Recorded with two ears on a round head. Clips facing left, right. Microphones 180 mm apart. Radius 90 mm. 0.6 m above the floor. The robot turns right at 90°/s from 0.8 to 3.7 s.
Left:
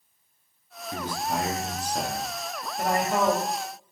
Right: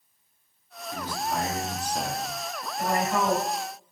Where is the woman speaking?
105° left, 1.6 m; by 3.4 s 165° left, 1.6 m.